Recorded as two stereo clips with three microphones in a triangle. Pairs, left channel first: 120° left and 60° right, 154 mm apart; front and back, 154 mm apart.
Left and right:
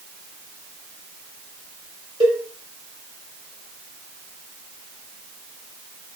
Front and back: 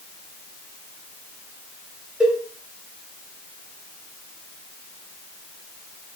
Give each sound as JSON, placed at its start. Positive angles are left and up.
{"t": 2.2, "sound": "a cowbell", "azimuth_deg": -95, "distance_m": 1.2}